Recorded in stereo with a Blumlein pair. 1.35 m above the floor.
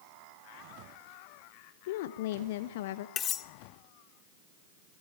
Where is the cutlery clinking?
25° left, 1.2 m.